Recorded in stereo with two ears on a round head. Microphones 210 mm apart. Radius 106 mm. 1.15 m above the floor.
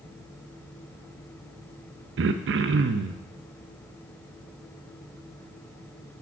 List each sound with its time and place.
2.2 s throat clearing: 55° right (ahead or behind), 0.6 m